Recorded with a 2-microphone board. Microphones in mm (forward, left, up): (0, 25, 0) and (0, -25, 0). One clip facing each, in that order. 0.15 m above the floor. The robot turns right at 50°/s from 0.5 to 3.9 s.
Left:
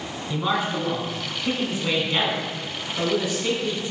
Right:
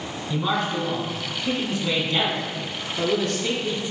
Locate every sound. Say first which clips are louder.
0.3 s a man speaking: even; 10° left (ahead or behind), 1.1 m; by 3.8 s centre (ahead or behind), 1.1 m